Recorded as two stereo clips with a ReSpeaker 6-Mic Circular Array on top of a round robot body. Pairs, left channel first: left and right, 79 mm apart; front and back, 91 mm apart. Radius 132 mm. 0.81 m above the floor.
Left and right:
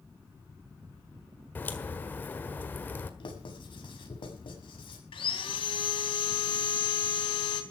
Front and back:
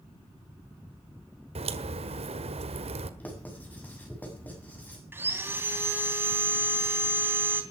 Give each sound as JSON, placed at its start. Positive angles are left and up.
{"t": 1.6, "sound": "a crack", "azimuth_deg": 160, "distance_m": 1.6}
{"t": 3.2, "sound": "writing", "azimuth_deg": 75, "distance_m": 7.0}
{"t": 5.1, "sound": "sawing", "azimuth_deg": 110, "distance_m": 3.5}